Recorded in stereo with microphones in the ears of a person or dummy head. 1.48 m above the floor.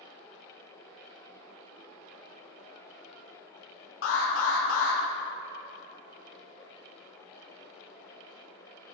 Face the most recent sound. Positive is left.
turn(degrees=75)  # may be behind; listen again after turning